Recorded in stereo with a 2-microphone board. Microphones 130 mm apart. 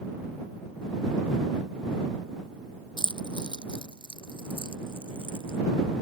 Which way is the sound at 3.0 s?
40° left (ahead or behind).